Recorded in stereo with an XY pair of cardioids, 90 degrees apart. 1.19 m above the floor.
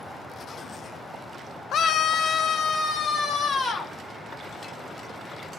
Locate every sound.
1.7 s a scream: 65° left, 0.6 m; by 3.9 s 60° left, 2.5 m